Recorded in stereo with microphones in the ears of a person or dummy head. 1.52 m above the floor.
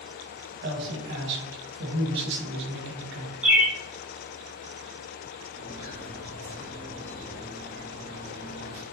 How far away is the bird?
About 0.6 m.